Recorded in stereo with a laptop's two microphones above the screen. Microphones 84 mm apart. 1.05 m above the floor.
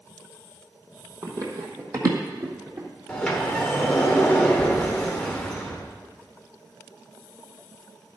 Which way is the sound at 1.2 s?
40° right (ahead or behind).